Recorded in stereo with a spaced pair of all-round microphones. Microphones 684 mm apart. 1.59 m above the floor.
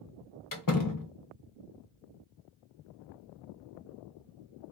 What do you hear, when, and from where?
0.5 s a door slam: 30° left (ahead or behind), 0.6 m